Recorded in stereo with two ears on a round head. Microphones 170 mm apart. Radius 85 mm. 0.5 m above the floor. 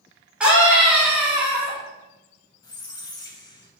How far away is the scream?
About 1.0 m.